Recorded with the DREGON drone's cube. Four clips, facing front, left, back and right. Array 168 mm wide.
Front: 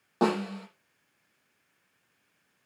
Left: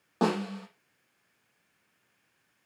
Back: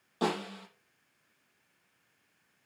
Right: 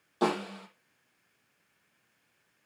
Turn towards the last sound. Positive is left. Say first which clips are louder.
# left 1 dB, front 6 dB
turn(degrees=45)